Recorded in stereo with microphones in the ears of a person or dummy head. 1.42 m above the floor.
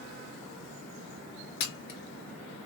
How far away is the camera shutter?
About 0.7 m.